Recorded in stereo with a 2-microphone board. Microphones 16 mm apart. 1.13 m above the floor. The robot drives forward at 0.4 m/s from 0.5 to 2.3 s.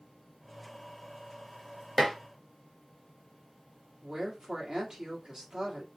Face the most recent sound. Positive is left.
turn(degrees=-55)  # may be behind; listen again after turning